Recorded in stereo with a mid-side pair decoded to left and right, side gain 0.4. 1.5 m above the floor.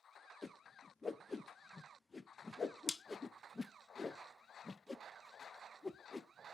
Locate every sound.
0.4 s a whoosh: 25° left, 0.6 m